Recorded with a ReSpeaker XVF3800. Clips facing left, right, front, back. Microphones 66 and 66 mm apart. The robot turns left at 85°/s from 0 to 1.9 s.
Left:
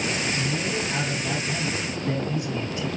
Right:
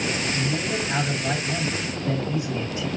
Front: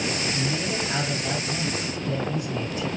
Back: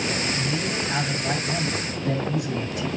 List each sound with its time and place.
0.3 s a man speaking: 40° right, 7.5 m; by 2.9 s 170° right, 7.5 m